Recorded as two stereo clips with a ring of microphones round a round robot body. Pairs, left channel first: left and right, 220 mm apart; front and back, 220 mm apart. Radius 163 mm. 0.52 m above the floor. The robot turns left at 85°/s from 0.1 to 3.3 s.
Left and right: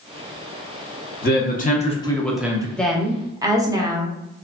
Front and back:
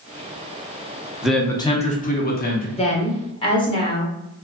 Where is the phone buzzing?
No phone buzzing in this recording.